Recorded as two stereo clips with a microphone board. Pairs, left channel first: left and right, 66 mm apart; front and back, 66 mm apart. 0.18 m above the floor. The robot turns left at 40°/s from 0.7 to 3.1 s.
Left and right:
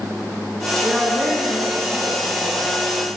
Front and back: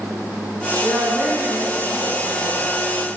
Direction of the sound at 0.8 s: 175° right.